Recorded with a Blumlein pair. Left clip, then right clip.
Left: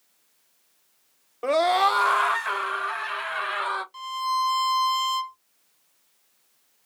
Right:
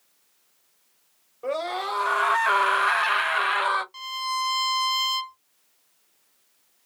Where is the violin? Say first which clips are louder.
Left 2 dB; 5° right, 1.3 m.